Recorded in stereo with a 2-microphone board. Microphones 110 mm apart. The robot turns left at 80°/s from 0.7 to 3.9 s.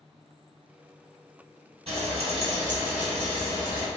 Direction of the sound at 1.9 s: 80° right.